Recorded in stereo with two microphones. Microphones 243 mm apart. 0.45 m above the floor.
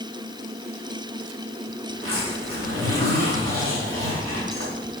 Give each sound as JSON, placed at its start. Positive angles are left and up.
{"t": 1.9, "sound": "a zipper", "side_deg": -65, "distance_m": 4.0}